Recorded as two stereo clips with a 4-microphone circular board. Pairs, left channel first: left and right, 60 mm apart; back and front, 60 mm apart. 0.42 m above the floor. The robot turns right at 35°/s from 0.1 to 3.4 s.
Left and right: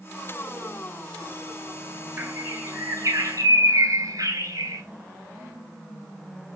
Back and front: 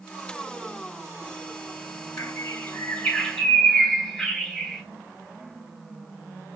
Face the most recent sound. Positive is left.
turn(degrees=-105)